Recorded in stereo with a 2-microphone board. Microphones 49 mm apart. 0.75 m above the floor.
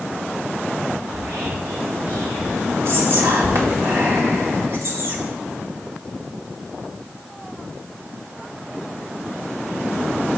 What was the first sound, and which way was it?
Whispering, 75° right (ahead or behind).